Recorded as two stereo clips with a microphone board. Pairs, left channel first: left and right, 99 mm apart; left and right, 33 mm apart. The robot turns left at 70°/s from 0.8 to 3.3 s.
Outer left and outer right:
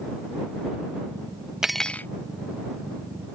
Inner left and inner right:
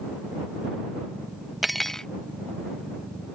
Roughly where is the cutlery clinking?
Behind.